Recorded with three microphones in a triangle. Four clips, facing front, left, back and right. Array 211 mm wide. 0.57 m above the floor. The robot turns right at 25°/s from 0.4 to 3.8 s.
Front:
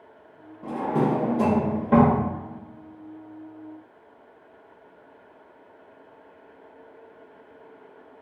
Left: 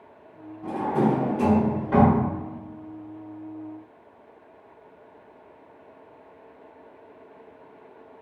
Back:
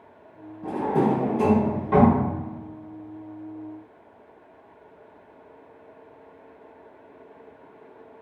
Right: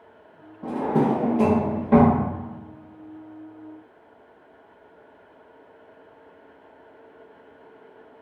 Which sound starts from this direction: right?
A drawer, at 0.6 s.